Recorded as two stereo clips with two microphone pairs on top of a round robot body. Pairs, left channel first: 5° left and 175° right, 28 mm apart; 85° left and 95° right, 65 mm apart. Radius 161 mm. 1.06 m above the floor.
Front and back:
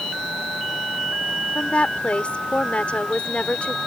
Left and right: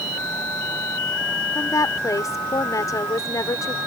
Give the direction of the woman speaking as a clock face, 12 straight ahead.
10 o'clock.